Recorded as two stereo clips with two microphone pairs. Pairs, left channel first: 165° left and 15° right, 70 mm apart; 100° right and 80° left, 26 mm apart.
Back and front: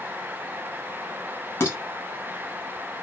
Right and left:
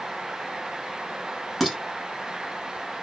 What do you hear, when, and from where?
1.6 s dishes clattering: 170° left, 1.0 m